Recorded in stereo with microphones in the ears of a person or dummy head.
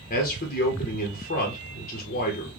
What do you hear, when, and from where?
0.1 s a man speaking: 45° left (ahead or behind), 1.1 m